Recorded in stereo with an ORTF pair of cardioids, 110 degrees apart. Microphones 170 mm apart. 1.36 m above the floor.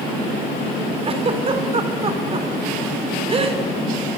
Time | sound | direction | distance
1.0 | a giggle | 35° right | 4 m